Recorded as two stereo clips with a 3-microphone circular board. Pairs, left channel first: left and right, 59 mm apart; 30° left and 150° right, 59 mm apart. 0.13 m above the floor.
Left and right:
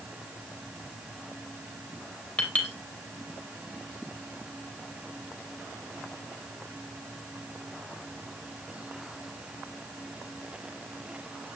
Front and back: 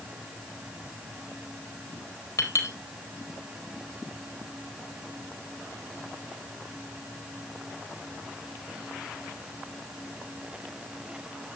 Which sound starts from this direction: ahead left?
A clink, at 2.4 s.